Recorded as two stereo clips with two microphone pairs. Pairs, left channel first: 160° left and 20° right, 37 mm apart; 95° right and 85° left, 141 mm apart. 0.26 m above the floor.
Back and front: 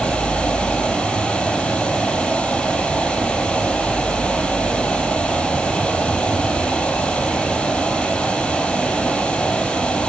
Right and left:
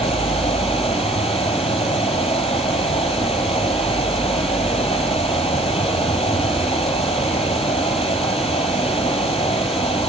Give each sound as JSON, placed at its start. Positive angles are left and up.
{"t": 0.0, "sound": "running water", "azimuth_deg": -135, "distance_m": 5.0}